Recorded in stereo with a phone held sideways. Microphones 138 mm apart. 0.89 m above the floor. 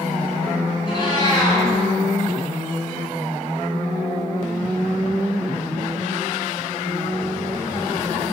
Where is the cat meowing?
35° left (ahead or behind), 1.2 m.